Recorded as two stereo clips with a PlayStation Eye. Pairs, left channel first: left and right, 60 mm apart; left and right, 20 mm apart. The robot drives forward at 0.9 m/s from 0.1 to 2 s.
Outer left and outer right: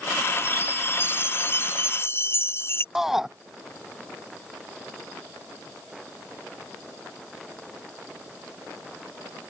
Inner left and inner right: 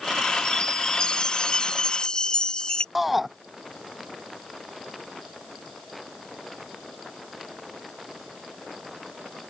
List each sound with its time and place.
0.5 s a chime: 40° left (ahead or behind)
3.0 s a shout: 5° right (ahead or behind)